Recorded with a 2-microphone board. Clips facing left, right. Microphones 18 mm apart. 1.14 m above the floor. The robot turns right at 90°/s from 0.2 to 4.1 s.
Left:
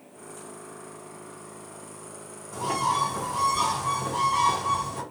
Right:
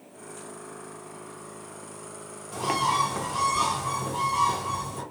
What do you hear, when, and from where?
2.5 s a bird: 115° right, 0.7 m; by 5.0 s 30° left, 0.7 m